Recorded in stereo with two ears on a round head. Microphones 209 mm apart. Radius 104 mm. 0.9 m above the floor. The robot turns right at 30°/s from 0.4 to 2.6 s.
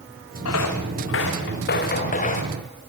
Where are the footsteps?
70° left (ahead or behind), 5 m; by 2.5 s 30° left (ahead or behind), 6 m.